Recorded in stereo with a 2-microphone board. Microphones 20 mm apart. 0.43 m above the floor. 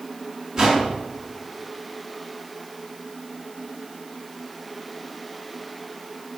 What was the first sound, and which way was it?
A whoosh, 40° right (ahead or behind).